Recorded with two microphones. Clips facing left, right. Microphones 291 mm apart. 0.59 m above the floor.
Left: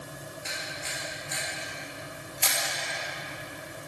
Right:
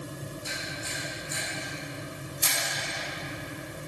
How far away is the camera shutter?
About 2.5 m.